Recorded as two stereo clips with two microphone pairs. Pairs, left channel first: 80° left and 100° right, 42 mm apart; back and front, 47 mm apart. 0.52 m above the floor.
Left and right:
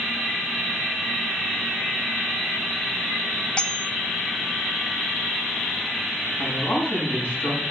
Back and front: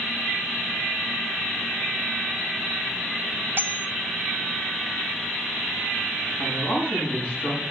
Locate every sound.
3.6 s cutlery clinking: 25° left, 0.5 m
6.4 s a man speaking: 120° left, 5.5 m